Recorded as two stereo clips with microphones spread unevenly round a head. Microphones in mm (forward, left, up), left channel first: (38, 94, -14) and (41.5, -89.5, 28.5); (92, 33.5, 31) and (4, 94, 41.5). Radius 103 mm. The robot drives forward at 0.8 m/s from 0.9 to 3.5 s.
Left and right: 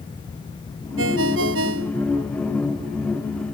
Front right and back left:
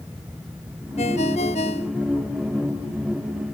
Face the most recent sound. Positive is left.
turn(degrees=-90)